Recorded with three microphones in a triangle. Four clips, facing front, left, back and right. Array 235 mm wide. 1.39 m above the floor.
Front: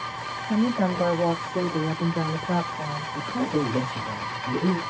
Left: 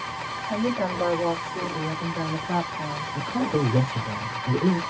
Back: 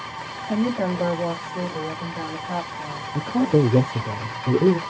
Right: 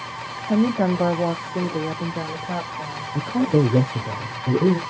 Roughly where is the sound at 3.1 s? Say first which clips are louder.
Right 6 dB, back 7 dB; behind right.